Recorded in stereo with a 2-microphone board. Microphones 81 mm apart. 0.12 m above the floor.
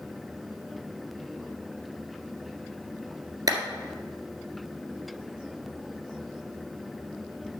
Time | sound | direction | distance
3.5 | a clap | 50° right (ahead or behind) | 1.7 m